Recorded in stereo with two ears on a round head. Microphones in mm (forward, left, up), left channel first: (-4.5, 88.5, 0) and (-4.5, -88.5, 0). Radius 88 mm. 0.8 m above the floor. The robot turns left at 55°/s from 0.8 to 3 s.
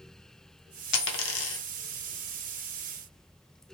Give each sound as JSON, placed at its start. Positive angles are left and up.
{"t": 0.9, "sound": "a dropped coin", "side_deg": 65, "distance_m": 0.7}